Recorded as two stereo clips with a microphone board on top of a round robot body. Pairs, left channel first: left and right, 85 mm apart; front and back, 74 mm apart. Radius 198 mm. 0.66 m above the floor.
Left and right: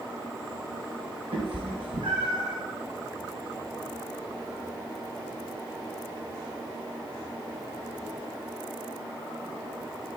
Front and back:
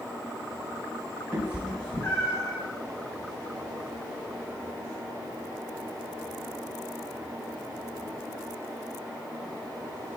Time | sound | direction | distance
1.3 | a cat meowing | 120° right | 1.2 m